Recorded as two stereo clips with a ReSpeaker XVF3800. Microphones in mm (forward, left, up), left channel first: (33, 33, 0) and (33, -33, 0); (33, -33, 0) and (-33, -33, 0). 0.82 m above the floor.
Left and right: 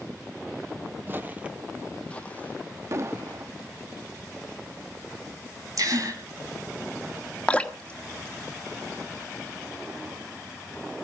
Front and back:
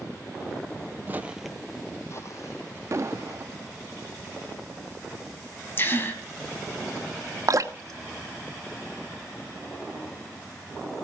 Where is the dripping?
160° left, 1.2 m.